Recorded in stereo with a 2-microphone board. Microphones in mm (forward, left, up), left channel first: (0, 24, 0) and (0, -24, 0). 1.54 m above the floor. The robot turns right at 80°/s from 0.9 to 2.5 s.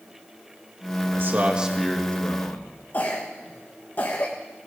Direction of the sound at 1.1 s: 60° right.